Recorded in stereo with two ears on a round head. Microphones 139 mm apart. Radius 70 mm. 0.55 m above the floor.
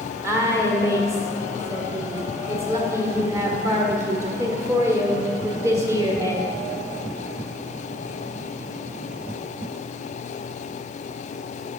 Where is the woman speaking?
20° right (ahead or behind), 1.4 m.